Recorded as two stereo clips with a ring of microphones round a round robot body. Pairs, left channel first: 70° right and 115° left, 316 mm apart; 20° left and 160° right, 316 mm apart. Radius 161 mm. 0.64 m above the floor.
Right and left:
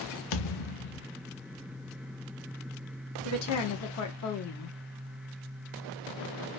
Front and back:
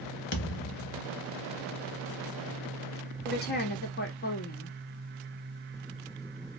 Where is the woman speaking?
35° right, 1.4 m.